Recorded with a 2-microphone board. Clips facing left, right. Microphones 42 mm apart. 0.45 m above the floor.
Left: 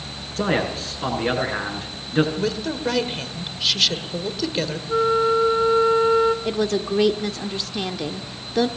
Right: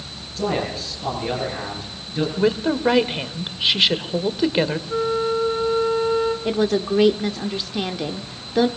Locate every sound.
0.4 s a man speaking: 50° left (ahead or behind), 6.5 m
2.4 s a woman speaking: 20° right (ahead or behind), 1.2 m
4.9 s a flute: 10° left (ahead or behind), 0.9 m
6.5 s a woman speaking: 5° right (ahead or behind), 0.7 m